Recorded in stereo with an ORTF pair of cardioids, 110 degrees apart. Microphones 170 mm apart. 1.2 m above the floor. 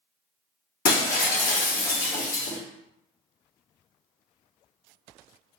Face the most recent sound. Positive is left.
turn(degrees=60)